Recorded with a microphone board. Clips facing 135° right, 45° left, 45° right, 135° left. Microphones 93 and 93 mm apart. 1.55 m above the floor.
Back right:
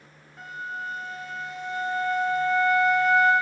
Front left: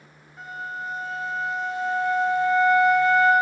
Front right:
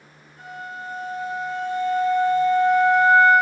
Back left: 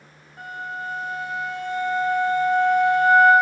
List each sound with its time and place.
0.4 s a flute: 135° left, 3.5 m